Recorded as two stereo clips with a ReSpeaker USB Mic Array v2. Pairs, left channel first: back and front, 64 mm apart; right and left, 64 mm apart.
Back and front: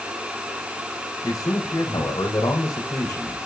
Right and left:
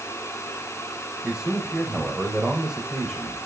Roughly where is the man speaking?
Behind.